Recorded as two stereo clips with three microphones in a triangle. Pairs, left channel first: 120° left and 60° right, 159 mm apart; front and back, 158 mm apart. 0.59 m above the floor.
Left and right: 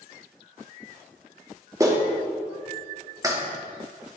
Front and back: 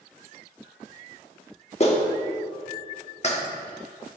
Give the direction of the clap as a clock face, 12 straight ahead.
12 o'clock.